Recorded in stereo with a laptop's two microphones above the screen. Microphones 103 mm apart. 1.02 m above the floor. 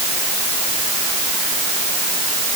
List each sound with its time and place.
Only background noise.